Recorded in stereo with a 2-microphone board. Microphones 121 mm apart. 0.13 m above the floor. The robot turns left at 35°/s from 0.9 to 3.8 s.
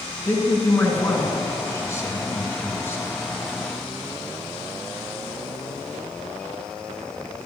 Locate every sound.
0.2 s a man speaking: 15° left (ahead or behind), 1.5 m; by 3.0 s 20° left (ahead or behind), 1.5 m